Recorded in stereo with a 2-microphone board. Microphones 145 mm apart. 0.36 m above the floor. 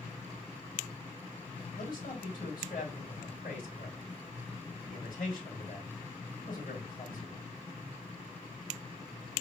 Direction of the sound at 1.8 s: 70° left (ahead or behind).